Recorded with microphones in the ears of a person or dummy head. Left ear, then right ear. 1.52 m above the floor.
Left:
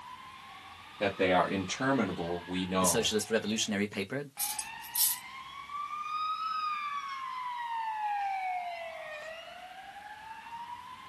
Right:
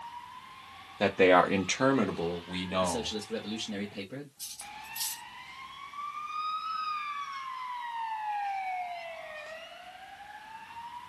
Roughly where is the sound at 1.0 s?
Right.